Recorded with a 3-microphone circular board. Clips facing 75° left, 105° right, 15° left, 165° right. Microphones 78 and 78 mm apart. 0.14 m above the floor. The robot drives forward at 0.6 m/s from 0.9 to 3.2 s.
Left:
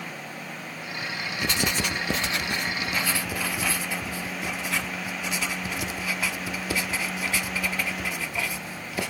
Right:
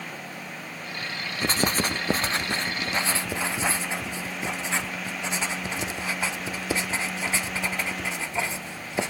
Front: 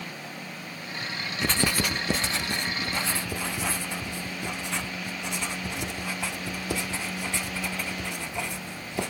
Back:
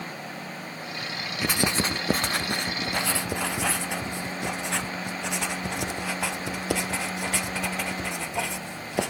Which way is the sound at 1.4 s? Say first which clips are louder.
Right 3 dB, back 1 dB; 85° right.